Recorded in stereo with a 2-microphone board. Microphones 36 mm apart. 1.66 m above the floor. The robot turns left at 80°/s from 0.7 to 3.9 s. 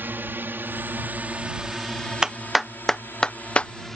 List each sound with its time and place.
0.0 s a drone: 80° right; by 4.0 s 5° left (ahead or behind)
2.2 s a clap: 20° right (ahead or behind); by 3.7 s 35° left (ahead or behind)